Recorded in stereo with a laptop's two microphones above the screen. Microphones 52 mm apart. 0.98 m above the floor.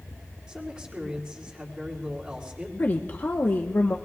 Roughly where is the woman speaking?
Left.